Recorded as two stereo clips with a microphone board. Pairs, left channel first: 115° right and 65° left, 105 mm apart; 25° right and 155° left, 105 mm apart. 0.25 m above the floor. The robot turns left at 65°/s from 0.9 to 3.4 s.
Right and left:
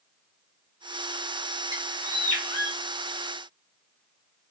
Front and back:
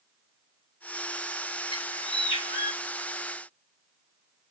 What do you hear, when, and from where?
1.7 s a bird: 10° left, 6 m; by 2.8 s 60° right, 6 m